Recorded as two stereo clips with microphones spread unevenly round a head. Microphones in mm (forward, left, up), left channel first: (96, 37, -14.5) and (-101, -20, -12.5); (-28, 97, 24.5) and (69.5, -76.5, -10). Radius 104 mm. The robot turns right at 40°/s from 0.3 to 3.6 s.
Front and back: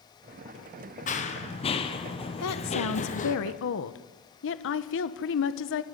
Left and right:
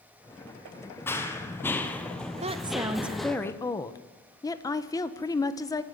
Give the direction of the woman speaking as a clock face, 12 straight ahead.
12 o'clock.